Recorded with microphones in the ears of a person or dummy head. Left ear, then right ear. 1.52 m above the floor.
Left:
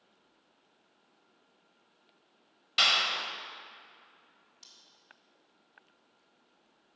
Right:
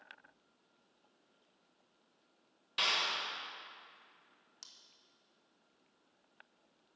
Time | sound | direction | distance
2.8 | a clap | 20° left (ahead or behind) | 1.1 m
4.6 | scissors | 55° right (ahead or behind) | 1.5 m